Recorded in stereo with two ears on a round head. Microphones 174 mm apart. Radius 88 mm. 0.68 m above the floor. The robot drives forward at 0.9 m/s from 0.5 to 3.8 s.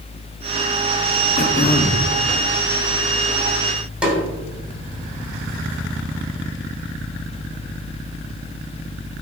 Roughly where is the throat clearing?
Left.